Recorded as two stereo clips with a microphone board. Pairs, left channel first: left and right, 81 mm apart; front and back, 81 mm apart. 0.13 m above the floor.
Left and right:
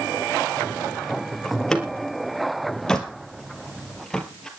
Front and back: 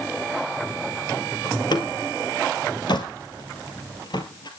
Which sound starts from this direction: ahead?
A door slam, at 1.4 s.